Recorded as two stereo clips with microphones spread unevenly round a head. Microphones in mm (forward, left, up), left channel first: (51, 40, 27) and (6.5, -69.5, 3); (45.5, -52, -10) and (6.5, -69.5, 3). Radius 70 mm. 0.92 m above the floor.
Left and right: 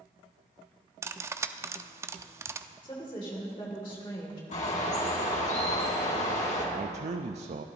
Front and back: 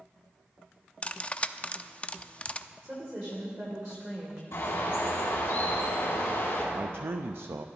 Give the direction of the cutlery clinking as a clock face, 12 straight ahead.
1 o'clock.